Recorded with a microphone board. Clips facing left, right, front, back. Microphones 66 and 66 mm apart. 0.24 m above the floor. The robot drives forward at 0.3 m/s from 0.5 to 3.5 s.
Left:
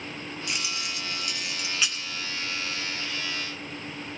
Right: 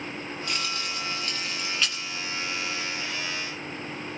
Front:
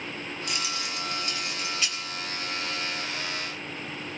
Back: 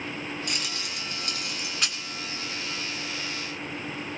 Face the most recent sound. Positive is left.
turn(degrees=170)